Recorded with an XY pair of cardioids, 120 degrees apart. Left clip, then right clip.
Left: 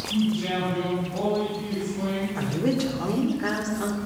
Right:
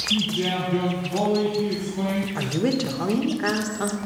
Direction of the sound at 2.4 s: 30° right.